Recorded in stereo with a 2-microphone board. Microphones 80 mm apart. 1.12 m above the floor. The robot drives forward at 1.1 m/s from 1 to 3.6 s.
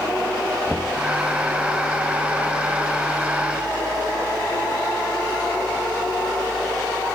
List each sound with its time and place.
0.7 s knocking: centre (ahead or behind)